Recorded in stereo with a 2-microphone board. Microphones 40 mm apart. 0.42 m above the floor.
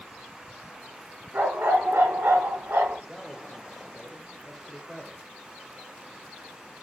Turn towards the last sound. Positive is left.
turn(degrees=5)  # may be behind; listen again after turning